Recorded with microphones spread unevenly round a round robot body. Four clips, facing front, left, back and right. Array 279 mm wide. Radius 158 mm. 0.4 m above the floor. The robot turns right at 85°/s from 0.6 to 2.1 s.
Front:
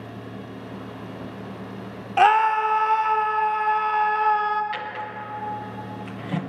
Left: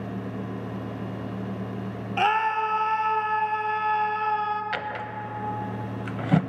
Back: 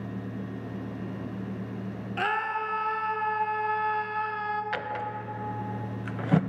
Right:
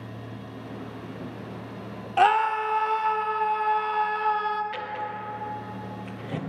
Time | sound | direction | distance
2.2 | a scream | 25° right | 0.9 m
4.7 | a drawer | 110° left | 0.5 m